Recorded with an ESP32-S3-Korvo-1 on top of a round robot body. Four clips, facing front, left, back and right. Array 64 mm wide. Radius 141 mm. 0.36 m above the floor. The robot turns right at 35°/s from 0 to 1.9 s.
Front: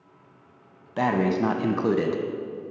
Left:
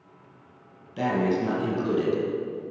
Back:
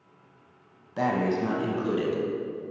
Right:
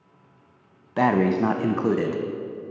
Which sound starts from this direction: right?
Breathing, at 1.0 s.